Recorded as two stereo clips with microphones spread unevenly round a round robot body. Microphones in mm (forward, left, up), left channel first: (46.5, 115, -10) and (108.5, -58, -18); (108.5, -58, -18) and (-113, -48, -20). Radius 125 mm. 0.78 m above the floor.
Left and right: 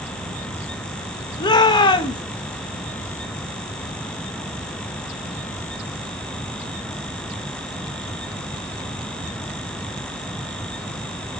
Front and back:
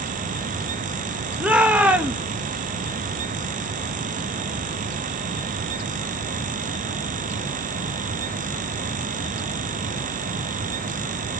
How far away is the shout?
About 1.0 m.